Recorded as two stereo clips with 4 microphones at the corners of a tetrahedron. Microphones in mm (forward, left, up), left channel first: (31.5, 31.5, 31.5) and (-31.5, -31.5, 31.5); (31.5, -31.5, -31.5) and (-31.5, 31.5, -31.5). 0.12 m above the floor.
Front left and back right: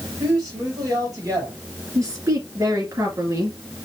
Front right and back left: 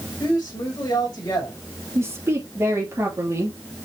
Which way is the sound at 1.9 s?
175° right.